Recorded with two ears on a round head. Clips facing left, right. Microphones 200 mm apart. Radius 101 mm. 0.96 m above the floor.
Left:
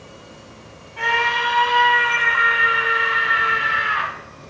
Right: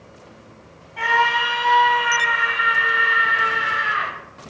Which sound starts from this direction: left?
A scream, at 1.0 s.